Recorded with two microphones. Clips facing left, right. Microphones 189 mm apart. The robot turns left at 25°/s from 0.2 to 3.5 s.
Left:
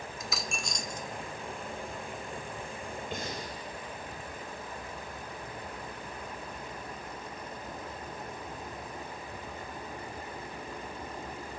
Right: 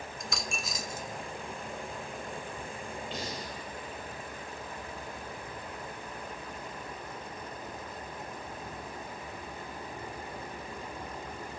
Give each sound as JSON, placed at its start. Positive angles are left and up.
{"t": 0.2, "sound": "a dropped coin", "side_deg": 5, "distance_m": 0.7}
{"t": 3.1, "sound": "breathing", "side_deg": 50, "distance_m": 7.0}